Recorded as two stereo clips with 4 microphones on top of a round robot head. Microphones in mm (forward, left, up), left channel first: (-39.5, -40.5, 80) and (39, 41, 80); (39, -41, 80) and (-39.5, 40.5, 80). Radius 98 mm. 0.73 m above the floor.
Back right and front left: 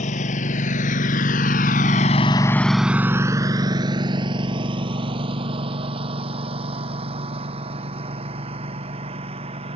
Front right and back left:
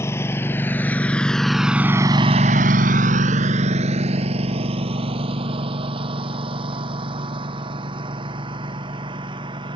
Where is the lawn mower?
115° right; by 9.8 s 85° left.